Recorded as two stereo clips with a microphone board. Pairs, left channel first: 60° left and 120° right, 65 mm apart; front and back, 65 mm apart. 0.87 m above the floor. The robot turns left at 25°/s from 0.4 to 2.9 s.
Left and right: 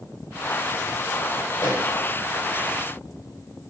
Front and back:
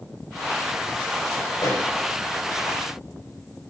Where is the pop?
20° left, 5 m; by 1.9 s 10° left, 5 m.